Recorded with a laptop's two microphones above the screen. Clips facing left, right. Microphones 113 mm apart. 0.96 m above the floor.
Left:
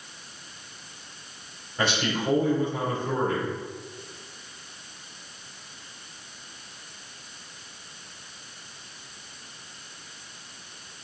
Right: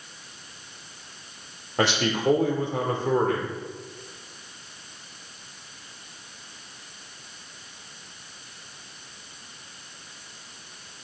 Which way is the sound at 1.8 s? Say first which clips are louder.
Right 3 dB; 75° right (ahead or behind).